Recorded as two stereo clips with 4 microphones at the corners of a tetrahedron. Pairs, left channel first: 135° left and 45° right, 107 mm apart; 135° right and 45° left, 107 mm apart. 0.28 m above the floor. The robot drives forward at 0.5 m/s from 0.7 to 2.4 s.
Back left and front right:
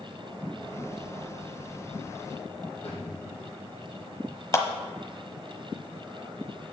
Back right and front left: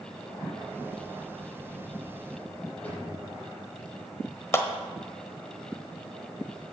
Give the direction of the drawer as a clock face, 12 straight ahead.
7 o'clock.